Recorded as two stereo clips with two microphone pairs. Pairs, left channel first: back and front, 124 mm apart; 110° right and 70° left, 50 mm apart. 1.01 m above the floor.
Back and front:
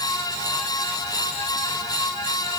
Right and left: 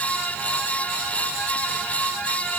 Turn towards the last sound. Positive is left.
No sound to turn to.